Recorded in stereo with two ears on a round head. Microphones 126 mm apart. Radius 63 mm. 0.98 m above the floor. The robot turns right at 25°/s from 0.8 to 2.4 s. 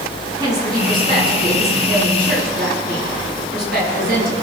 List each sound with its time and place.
0.4 s a woman speaking: 155° right, 9 m; by 4.3 s 115° right, 9 m